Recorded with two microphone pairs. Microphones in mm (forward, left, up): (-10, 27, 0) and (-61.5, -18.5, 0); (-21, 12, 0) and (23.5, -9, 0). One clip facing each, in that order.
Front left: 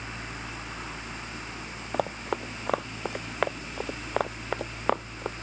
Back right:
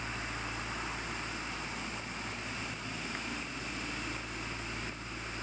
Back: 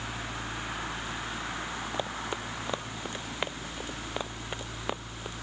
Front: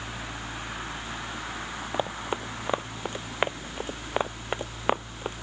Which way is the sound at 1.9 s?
45° left.